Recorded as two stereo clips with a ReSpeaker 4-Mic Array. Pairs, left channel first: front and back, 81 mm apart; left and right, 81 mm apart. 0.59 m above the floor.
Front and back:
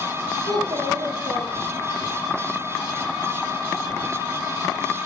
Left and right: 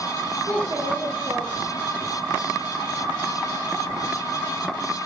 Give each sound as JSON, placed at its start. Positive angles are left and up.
{"t": 0.5, "sound": "a child speaking", "azimuth_deg": -145, "distance_m": 8.5}